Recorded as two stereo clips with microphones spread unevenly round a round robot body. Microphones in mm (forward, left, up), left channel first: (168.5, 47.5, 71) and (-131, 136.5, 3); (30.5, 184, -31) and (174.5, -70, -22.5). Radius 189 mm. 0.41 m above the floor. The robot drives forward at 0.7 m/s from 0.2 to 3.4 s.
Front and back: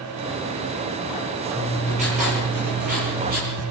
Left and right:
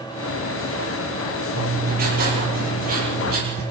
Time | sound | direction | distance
1.6 | writing | 125° right | 7 m